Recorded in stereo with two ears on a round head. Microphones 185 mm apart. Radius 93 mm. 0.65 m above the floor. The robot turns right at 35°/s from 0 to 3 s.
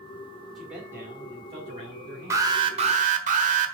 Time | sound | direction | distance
0.6 | a man speaking | straight behind | 2.0 m
2.3 | an alarm | 15° right (ahead or behind) | 1.4 m